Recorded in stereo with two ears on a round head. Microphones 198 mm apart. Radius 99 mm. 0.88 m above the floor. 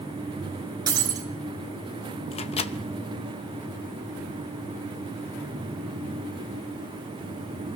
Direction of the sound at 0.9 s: 20° right (ahead or behind).